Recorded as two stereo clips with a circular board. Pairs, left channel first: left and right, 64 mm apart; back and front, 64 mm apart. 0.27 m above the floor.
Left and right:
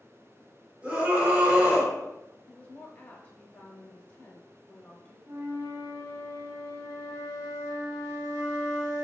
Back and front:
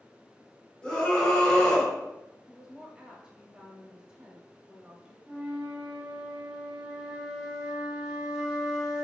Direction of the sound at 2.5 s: 65° left.